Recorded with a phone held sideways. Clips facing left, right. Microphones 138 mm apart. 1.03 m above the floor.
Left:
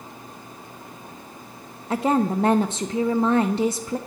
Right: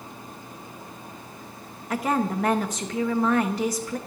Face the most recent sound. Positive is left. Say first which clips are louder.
# left 4 dB
turn(degrees=25)  # may be behind; listen again after turning